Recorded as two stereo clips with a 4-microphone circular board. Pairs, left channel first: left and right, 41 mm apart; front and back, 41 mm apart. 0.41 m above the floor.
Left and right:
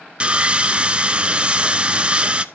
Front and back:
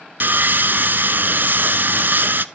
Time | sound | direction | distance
0.2 | sawing | 150° right | 0.7 m